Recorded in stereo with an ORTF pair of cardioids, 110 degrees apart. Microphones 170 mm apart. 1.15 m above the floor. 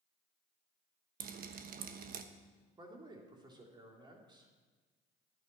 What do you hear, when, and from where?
1.2 s dripping: 60° right, 1.1 m
2.8 s a man speaking: 25° right, 3 m